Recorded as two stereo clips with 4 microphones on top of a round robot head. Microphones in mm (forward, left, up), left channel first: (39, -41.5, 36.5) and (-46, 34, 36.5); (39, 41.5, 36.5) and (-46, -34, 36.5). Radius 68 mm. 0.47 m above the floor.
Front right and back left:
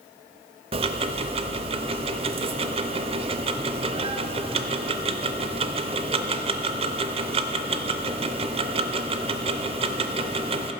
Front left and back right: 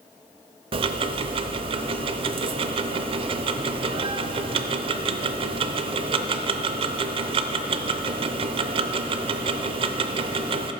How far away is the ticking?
About 0.5 m.